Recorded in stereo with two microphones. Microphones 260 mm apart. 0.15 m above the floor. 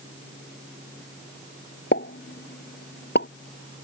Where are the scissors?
I don't hear scissors.